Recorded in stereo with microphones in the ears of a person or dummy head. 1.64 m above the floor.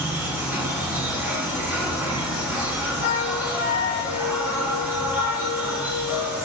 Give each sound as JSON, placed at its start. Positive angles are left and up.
{"t": 0.0, "sound": "an insect", "side_deg": 0, "distance_m": 6.5}
{"t": 3.0, "sound": "a flute", "side_deg": 70, "distance_m": 2.5}